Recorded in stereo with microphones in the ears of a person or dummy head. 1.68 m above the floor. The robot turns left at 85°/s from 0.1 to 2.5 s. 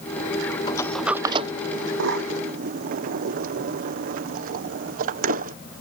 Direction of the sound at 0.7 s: 25° left (ahead or behind).